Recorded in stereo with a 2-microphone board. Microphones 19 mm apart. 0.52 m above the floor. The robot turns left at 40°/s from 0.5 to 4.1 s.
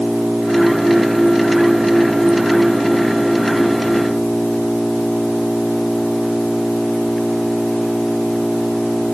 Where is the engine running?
45° right; by 9.2 s 170° left.